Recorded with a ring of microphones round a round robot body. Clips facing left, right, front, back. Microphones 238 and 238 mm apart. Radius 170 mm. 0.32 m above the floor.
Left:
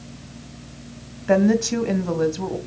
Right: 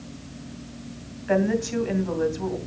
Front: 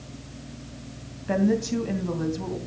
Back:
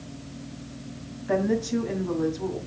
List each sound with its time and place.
1.3 s a woman speaking: 65° left, 2.5 m